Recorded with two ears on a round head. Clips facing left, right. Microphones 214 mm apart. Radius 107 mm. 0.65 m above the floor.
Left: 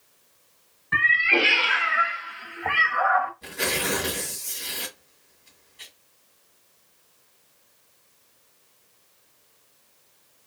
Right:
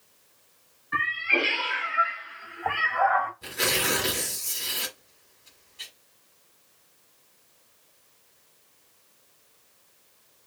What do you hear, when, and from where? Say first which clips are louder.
0.9 s a cat meowing: left 4 dB; 75° left (ahead or behind), 1.0 m; by 3.3 s 5° left (ahead or behind), 0.7 m
3.4 s tearing paper: left 1 dB; 10° right (ahead or behind), 1.4 m